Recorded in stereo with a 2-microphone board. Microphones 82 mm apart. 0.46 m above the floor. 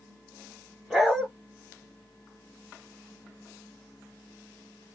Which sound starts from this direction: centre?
A dog barking, at 0.9 s.